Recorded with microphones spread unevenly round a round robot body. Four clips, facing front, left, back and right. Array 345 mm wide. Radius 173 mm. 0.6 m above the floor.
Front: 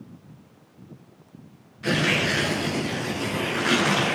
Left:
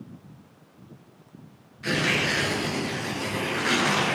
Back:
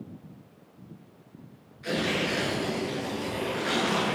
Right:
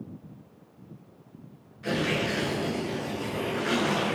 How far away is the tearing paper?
About 9 m.